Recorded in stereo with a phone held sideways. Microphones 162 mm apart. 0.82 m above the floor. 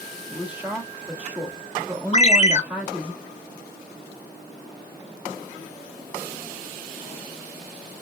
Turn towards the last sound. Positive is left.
turn(degrees=45)  # may be behind; listen again after turning